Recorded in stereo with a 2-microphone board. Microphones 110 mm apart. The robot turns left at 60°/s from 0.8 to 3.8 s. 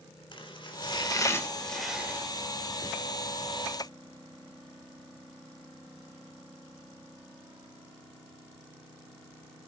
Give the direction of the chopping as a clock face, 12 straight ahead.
10 o'clock.